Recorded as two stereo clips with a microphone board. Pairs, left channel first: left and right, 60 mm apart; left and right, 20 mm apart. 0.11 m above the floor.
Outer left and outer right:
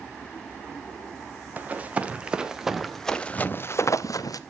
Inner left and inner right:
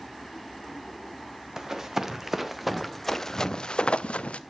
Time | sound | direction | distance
1.6 | running footsteps | 30° right (ahead or behind) | 2.5 m